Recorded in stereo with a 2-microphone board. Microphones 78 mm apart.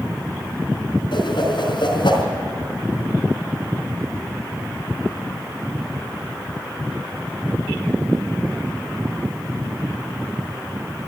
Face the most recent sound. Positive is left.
turn(degrees=80)